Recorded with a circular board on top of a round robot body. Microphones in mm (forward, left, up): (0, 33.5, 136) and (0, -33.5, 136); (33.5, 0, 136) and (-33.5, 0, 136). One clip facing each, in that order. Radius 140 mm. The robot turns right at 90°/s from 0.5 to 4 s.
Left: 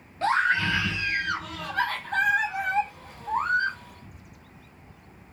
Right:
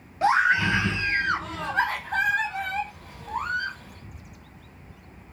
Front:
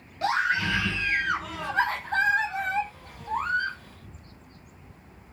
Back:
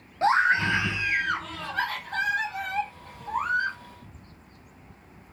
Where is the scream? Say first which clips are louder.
Right 3 dB, back 4 dB; 160° right, 0.7 m; by 3.8 s 135° left, 0.7 m.